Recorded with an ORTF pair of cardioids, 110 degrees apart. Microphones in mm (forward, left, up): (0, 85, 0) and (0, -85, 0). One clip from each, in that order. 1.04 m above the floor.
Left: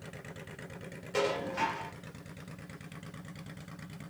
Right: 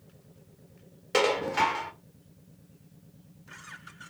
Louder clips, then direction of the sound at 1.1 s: Right 7 dB; 55° right.